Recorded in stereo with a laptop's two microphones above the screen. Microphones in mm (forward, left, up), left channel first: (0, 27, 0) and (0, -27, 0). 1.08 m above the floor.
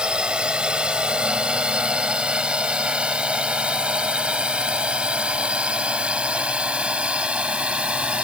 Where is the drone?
15° right (ahead or behind); by 8.3 s 20° right (ahead or behind).